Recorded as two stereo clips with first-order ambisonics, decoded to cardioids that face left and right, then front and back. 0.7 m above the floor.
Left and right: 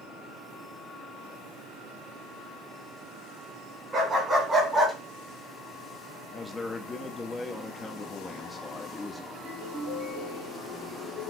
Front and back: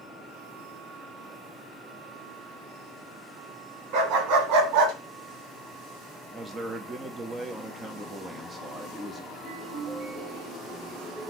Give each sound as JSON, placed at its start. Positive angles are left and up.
{"t": 3.9, "sound": "a dog barking", "azimuth_deg": -155, "distance_m": 1.8}
{"t": 6.3, "sound": "a man speaking", "azimuth_deg": 145, "distance_m": 0.6}
{"t": 9.3, "sound": "a ringtone", "azimuth_deg": -130, "distance_m": 4.0}